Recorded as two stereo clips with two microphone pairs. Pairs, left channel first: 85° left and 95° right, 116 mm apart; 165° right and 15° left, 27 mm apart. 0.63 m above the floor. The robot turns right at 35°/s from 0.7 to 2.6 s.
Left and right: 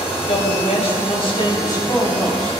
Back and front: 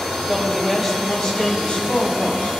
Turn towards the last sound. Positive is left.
turn(degrees=170)